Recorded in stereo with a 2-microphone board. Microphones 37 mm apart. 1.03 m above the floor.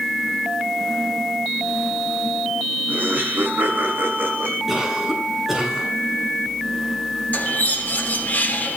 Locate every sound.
2.9 s laughter: 50° right (ahead or behind), 7.5 m; by 4.6 s 65° right (ahead or behind), 8 m
4.7 s a cough: 10° right (ahead or behind), 8 m
7.3 s a bird: 50° left (ahead or behind), 3.5 m